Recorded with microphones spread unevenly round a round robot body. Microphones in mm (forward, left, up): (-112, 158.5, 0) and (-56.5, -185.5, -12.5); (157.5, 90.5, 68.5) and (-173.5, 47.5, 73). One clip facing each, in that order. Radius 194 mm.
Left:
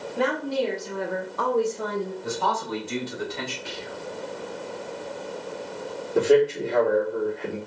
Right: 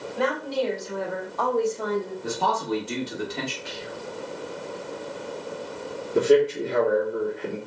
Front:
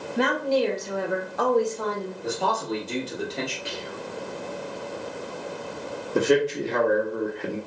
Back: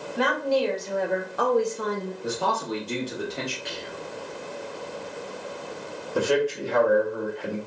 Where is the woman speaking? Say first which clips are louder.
Left 1 dB, front 1 dB; 50° left, 1.1 m; by 2.1 s 175° right, 0.8 m.